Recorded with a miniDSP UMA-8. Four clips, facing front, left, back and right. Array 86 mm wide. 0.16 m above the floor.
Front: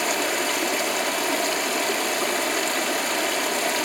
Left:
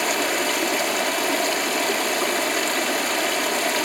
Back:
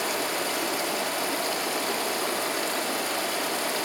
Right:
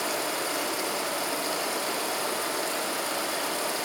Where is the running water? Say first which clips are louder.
Left 7 dB, front 4 dB; 60° left, 2 m.